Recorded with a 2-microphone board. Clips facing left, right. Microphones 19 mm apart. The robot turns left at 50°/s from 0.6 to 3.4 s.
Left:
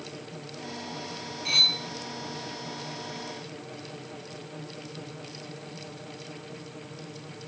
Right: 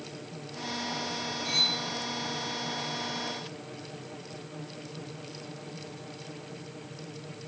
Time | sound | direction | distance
1.4 | cutlery clinking | 25° left (ahead or behind) | 1.9 m